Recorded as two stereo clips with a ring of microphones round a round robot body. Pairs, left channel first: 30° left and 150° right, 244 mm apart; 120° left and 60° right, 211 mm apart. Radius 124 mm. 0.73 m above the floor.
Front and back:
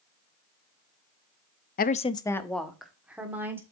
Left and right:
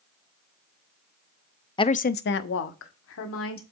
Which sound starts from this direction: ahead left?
A woman speaking, at 1.8 s.